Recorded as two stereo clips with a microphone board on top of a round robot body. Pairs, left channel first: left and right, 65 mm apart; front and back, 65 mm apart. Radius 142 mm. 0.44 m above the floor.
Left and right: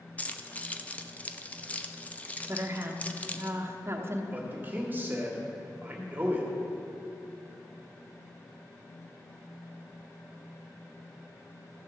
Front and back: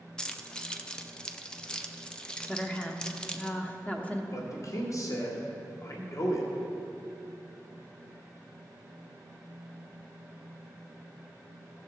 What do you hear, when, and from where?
0.2 s keys jangling: 60° left, 0.8 m
2.5 s a woman speaking: 60° right, 1.2 m
4.3 s a man speaking: 30° right, 1.6 m